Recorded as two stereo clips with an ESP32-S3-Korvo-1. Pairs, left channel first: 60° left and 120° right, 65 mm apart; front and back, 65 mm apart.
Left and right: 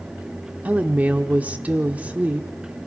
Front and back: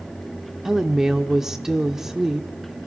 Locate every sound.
0.7 s a woman speaking: 110° right, 1.0 m